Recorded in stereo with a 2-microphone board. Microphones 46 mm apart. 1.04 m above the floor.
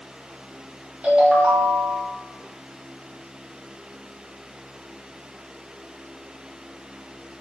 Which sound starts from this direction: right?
A ringtone, at 1.0 s.